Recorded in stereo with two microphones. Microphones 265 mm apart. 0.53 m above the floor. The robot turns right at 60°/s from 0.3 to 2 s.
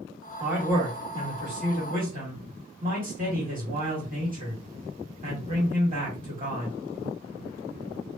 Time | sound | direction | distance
0.4 | a man speaking | 175° right | 1.5 m